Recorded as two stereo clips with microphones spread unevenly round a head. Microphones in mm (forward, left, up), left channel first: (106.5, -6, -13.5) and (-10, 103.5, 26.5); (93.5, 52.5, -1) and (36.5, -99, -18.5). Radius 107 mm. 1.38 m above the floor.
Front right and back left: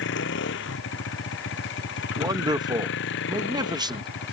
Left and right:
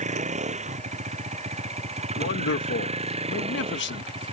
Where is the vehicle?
65° right; by 4.3 s 55° right.